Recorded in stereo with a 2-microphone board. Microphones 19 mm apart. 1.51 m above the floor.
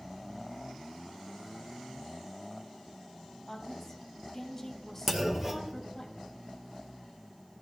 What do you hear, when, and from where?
3.5 s a woman speaking: 15° left (ahead or behind), 1.8 m
5.1 s a clunk: 20° right (ahead or behind), 0.9 m